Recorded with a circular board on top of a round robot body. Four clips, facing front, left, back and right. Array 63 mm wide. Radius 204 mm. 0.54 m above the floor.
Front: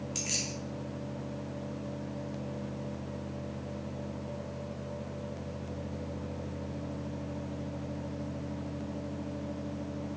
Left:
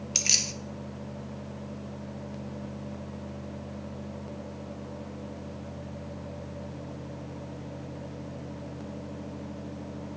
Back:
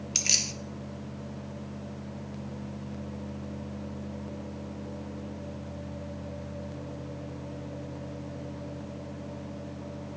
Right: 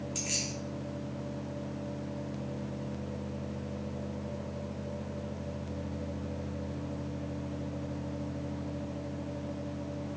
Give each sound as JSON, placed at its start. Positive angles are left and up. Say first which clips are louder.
{"t": 0.1, "sound": "keys jangling", "louder": "left 2 dB, back 1 dB", "azimuth_deg": 130, "distance_m": 0.7}